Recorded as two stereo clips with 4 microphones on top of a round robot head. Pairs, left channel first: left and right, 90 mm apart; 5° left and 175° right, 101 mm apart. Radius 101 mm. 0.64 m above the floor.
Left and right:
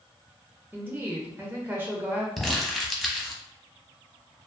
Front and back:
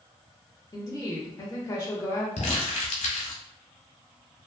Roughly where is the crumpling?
Ahead.